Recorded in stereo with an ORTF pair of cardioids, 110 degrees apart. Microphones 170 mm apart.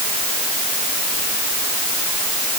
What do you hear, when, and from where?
Only background noise.